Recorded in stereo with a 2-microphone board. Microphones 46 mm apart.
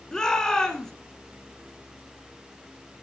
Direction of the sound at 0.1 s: 15° left (ahead or behind).